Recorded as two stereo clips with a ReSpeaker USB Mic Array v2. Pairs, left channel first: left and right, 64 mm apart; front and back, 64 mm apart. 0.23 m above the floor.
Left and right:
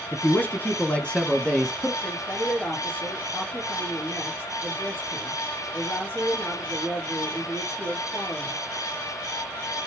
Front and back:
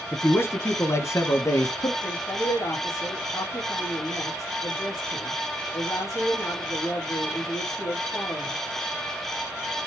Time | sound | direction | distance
0.1 | a man speaking | 45° left | 2.0 m
2.0 | a woman speaking | 35° left | 4.5 m